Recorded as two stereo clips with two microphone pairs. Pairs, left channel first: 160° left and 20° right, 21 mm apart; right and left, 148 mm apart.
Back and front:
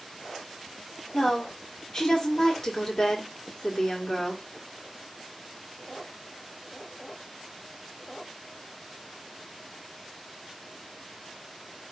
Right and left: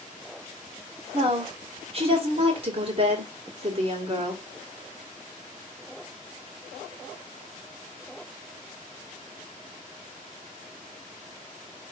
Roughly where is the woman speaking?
Behind left.